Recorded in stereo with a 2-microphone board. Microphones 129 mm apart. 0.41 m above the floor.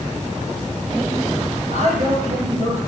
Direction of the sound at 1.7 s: 55° right (ahead or behind).